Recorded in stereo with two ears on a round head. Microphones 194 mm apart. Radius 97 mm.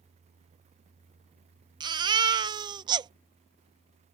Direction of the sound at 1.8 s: 20° right (ahead or behind).